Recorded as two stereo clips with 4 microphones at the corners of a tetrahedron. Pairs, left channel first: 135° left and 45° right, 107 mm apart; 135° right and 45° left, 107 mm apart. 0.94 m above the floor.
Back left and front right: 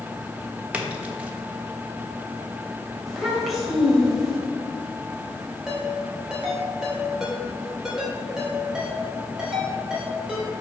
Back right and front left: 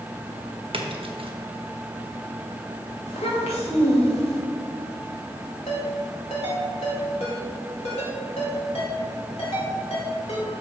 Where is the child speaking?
135° right, 2.5 m.